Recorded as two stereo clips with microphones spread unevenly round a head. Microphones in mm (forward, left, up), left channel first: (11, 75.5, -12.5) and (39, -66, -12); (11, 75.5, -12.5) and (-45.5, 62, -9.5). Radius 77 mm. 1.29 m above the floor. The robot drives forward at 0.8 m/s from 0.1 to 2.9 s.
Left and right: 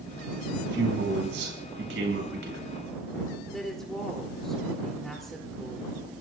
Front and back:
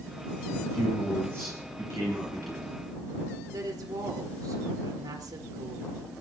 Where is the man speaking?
90° right, 9.5 m; by 2.8 s 100° right, 9.5 m.